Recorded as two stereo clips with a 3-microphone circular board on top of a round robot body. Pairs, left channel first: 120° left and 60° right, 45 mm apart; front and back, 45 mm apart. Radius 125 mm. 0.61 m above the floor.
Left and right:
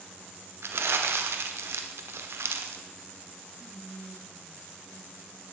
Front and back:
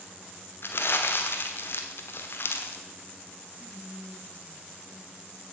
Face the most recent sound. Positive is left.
turn(degrees=-115)